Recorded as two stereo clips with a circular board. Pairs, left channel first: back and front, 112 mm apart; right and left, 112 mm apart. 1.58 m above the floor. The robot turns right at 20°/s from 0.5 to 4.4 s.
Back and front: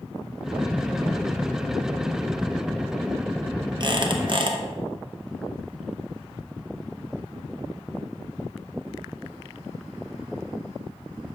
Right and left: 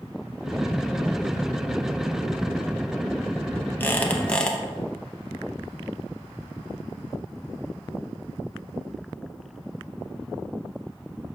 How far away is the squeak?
About 0.9 m.